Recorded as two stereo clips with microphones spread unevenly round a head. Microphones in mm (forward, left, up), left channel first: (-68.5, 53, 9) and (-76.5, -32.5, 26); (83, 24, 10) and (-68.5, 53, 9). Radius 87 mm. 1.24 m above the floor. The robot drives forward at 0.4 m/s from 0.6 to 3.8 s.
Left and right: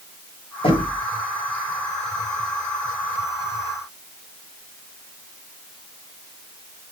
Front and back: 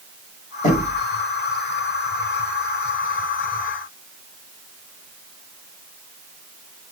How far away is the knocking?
About 5.5 m.